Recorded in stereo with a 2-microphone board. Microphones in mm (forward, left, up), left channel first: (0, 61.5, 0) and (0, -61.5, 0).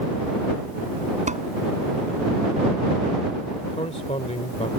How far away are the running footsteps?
No running footsteps in this recording.